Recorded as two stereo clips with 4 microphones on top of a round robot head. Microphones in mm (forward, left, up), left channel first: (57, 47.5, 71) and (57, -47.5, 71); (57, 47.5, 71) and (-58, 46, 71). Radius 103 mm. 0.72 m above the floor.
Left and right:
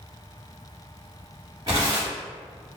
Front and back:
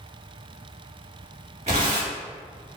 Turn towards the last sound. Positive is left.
turn(degrees=-155)